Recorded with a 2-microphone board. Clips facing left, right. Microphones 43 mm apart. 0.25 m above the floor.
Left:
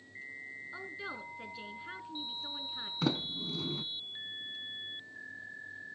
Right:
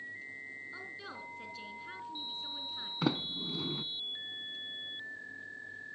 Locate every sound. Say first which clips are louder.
0.7 s a woman speaking: left 3 dB; 15° left (ahead or behind), 2.5 m
3.0 s a sliding door: even; 10° right (ahead or behind), 1.0 m